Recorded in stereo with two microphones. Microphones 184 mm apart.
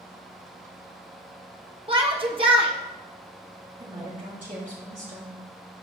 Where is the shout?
30° right (ahead or behind), 0.9 m.